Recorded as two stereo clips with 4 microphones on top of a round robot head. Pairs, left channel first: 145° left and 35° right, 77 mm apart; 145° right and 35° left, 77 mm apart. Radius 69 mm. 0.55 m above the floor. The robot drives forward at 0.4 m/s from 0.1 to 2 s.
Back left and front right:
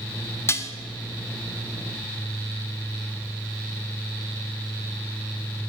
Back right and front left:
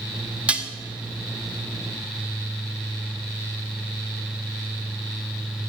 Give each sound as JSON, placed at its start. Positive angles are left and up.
{"t": 0.5, "sound": "dishes clattering", "azimuth_deg": 105, "distance_m": 0.7}